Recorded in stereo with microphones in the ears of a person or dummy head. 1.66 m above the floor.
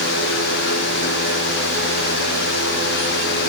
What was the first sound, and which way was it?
Only background noise.